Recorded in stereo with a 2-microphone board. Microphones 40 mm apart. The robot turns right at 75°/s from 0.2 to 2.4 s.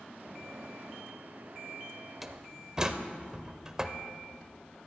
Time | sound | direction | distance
2.2 | a door slam | 5° right (ahead or behind) | 0.8 m